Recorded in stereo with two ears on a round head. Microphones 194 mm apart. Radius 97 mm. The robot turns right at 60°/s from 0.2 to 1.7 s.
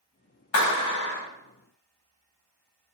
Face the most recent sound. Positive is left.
turn(degrees=160)